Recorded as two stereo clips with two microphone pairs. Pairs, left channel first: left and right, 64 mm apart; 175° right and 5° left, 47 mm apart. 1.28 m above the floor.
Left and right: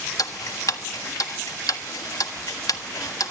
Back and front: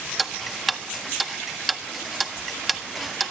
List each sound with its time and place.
0.2 s ticking: 95° left, 1.4 m